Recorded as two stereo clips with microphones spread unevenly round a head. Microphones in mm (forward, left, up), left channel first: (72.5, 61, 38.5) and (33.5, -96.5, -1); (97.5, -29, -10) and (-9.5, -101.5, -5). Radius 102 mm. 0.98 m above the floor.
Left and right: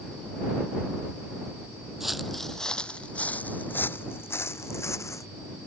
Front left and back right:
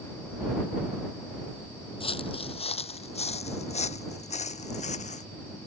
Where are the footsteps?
10° right; by 5.2 s 10° left.